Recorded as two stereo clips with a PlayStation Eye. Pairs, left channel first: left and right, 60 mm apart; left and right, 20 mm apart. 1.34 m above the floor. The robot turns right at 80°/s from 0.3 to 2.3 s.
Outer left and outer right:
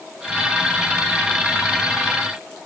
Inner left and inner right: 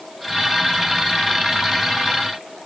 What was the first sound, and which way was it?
Only background noise.